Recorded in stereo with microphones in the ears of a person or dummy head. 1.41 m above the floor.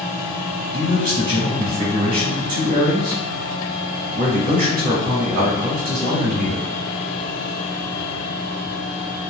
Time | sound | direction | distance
0.7 | a man speaking | 40° right (ahead or behind) | 1.4 m